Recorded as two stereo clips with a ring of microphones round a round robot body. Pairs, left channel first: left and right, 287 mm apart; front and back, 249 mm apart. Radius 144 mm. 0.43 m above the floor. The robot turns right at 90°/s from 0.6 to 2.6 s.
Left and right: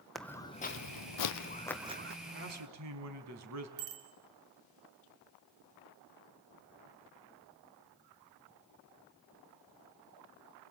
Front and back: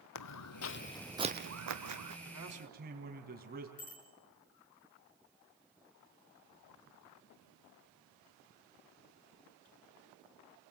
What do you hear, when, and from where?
0.1 s footsteps: straight ahead, 1.4 m; by 2.1 s 135° right, 1.9 m
2.2 s a man speaking: 155° right, 4 m; by 3.7 s 120° right, 4 m
3.8 s a bicycle bell: 65° right, 4 m